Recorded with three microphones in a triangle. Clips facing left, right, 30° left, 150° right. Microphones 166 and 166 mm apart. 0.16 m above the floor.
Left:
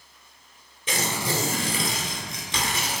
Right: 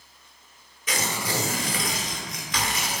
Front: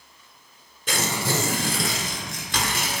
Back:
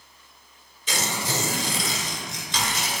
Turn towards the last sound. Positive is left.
turn(degrees=35)